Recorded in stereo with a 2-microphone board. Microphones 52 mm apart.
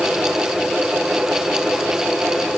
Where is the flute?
I don't hear a flute.